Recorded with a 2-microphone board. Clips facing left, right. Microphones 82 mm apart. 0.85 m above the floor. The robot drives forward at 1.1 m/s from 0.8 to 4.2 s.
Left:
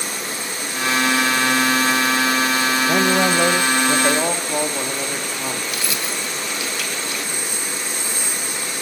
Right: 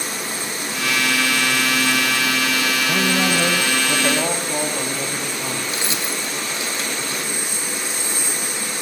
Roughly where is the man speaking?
Left.